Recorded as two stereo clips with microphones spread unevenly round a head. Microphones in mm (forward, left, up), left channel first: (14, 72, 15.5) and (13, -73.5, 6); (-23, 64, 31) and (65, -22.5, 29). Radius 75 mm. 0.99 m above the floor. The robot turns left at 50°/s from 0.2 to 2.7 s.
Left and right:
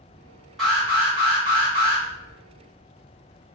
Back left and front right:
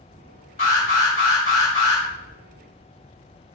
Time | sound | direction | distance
0.6 | an alarm | straight behind | 1.9 m